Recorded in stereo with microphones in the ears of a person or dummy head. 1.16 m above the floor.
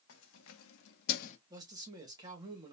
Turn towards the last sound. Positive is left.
turn(degrees=-20)  # may be behind; listen again after turning